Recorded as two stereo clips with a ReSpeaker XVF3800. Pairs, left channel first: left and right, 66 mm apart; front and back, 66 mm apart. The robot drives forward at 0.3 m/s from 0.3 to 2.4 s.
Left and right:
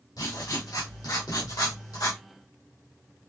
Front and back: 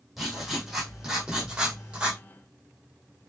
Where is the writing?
95° left, 2 m; by 2.2 s 110° left, 2 m.